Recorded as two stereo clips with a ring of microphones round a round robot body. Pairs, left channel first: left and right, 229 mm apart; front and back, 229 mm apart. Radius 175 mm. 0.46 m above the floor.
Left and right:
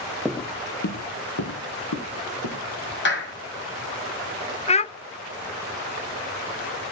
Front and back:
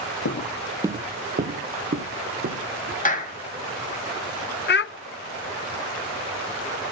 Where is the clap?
55° left, 3.5 m.